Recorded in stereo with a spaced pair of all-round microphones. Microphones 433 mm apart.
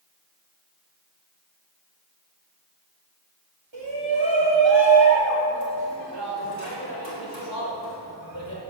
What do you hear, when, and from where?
3.7 s a shout: 85° right, 4 m